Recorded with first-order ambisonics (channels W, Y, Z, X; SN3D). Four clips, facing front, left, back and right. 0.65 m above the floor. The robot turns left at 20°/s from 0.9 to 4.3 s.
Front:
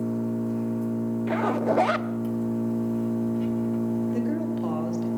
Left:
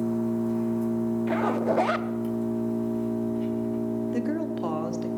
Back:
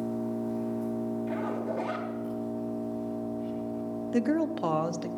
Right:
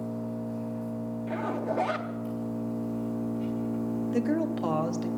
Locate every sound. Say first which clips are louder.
0.0 s an engine running: left 8 dB, front 4 dB; 80° left, 5.5 m; by 5.2 s 10° left, 5.5 m
1.3 s a zipper: left 4 dB, front 7 dB; 40° left, 0.6 m; by 2.1 s 25° left, 0.6 m
4.1 s a woman speaking: right 1 dB, even; 170° right, 0.8 m; by 5.1 s 175° right, 0.8 m